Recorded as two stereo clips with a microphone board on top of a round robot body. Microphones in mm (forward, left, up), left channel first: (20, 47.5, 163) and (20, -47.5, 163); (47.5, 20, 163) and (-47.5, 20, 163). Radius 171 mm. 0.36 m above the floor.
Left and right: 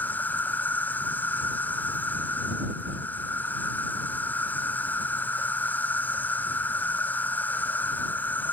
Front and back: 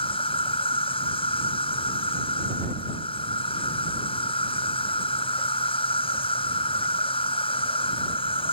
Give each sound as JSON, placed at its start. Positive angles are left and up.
{"t": 0.0, "sound": "an insect", "azimuth_deg": 20}